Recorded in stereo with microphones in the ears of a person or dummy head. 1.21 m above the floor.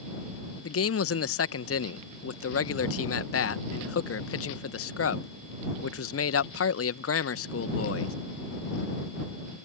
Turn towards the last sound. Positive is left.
turn(degrees=80)